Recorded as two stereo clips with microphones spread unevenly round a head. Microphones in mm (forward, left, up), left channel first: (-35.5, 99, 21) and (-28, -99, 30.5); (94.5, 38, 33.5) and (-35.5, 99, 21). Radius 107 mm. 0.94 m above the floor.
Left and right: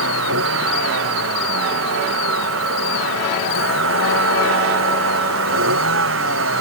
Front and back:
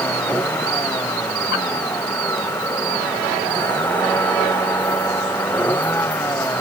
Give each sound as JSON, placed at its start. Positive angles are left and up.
{"t": 0.0, "sound": "a vehicle", "azimuth_deg": -105}